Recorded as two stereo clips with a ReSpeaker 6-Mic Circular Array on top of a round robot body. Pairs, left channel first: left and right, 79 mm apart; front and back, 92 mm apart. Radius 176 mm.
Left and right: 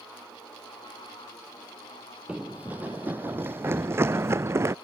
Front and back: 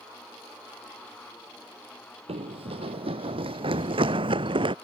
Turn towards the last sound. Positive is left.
turn(degrees=-150)